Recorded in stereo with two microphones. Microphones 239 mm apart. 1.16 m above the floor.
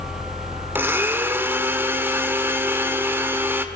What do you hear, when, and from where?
0.8 s a blender: 10° right (ahead or behind), 1.6 m